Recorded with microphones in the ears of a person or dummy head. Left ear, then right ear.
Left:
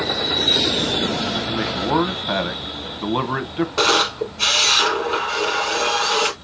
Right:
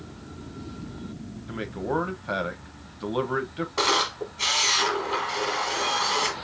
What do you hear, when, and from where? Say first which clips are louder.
1.5 s a man speaking: left 4 dB; 5° left (ahead or behind), 0.8 m
3.8 s a camera shutter: left 6 dB; 15° right (ahead or behind), 1.5 m